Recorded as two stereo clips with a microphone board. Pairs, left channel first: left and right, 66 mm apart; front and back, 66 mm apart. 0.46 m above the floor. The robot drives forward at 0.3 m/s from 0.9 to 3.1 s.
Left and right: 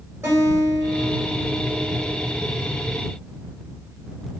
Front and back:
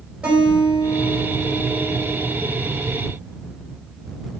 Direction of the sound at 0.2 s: 115° right.